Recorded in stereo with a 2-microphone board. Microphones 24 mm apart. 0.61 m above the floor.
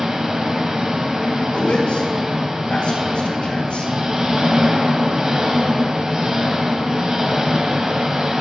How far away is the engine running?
About 1.7 m.